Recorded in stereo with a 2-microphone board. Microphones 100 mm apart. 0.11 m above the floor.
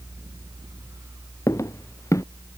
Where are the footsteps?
35° left (ahead or behind).